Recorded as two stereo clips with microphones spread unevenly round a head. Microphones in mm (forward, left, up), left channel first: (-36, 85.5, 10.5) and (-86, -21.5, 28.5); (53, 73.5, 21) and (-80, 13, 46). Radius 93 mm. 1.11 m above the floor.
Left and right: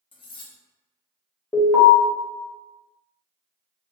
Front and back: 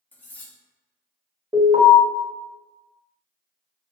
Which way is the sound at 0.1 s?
110° left.